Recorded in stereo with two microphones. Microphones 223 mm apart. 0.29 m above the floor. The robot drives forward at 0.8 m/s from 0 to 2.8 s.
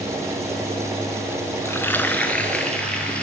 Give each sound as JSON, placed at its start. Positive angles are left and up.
{"t": 1.6, "sound": "frying", "side_deg": 10, "distance_m": 0.6}